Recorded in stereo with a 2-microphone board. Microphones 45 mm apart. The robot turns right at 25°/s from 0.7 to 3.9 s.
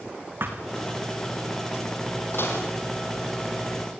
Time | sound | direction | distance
0.4 | a thud | 55° right (ahead or behind) | 3.5 m
2.3 | dishes clattering | 60° left (ahead or behind) | 5.5 m